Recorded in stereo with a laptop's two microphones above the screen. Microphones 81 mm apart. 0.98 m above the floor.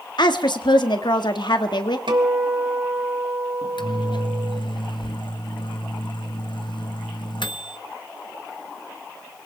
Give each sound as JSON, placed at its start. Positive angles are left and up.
{"t": 0.2, "sound": "a woman speaking", "side_deg": 70, "distance_m": 1.6}
{"t": 2.1, "sound": "a guitar", "side_deg": -75, "distance_m": 2.5}
{"t": 3.6, "sound": "a microwave", "side_deg": 75, "distance_m": 0.9}